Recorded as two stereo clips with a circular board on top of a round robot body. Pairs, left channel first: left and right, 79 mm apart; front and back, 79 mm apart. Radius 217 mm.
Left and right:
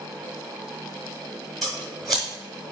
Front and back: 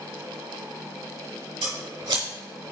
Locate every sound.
1.6 s scissors: straight behind, 0.9 m